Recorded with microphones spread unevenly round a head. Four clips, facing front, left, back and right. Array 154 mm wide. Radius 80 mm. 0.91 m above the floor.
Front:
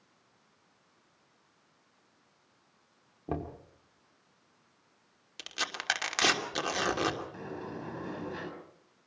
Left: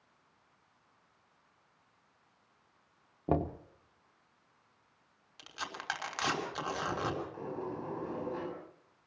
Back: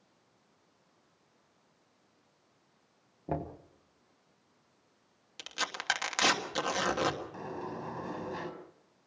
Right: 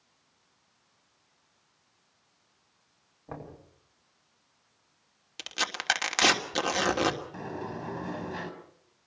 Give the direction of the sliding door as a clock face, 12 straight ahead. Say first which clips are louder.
Right 2 dB, back 1 dB; 3 o'clock.